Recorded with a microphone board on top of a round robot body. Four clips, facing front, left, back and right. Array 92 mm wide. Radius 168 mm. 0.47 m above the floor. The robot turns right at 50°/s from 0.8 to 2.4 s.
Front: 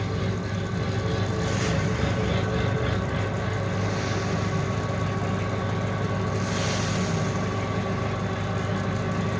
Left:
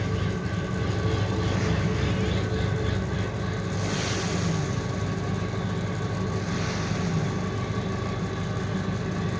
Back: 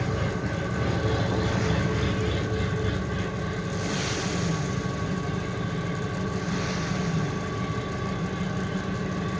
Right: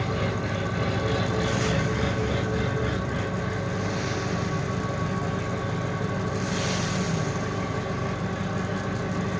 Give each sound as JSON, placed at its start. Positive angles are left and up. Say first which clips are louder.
{"t": 0.0, "sound": "an engine running", "louder": "right 2 dB, back 1 dB", "azimuth_deg": -105, "distance_m": 3.5}